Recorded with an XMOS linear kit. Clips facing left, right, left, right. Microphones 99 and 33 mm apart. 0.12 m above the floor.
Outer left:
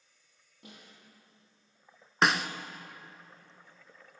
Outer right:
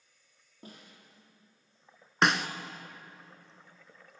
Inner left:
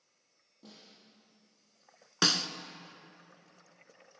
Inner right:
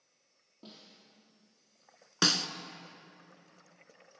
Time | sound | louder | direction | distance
0.6 | a snare drum | outer right 2 dB, inner right 2 dB | 35° right (ahead or behind) | 4 m
2.2 | a snare drum | even, even | centre (ahead or behind) | 0.6 m